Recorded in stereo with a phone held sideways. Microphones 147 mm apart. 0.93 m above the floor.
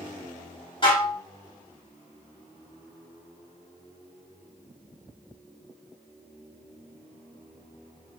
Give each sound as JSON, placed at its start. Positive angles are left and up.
{"t": 0.8, "sound": "dishes clattering", "side_deg": 35, "distance_m": 1.1}